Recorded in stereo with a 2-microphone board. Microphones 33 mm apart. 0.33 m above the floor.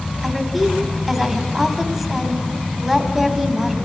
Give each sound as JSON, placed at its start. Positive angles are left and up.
{"t": 0.2, "sound": "a woman speaking", "side_deg": -5, "distance_m": 1.8}